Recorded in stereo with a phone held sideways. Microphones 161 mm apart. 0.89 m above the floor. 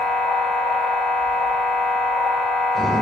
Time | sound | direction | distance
0.0 | a machine running | centre (ahead or behind) | 3 m